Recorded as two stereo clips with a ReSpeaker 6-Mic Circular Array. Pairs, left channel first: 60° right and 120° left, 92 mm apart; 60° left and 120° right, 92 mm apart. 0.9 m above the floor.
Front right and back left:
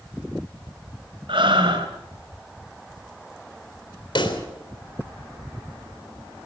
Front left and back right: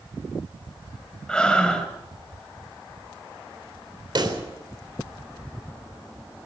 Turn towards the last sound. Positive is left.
turn(degrees=-85)